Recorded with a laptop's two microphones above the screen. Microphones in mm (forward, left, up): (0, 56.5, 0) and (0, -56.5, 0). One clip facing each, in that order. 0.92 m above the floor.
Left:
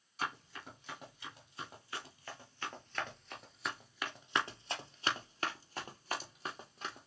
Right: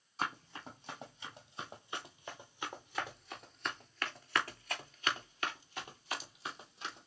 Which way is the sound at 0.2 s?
30° right (ahead or behind).